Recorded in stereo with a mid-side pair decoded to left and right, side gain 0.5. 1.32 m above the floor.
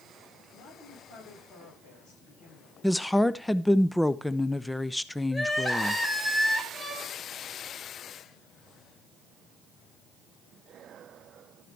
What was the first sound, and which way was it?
A woman speaking, 70° left.